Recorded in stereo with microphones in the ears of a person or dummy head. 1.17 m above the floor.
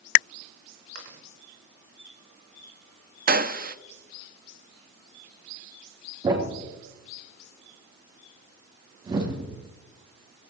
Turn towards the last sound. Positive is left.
turn(degrees=-25)  # may be behind; listen again after turning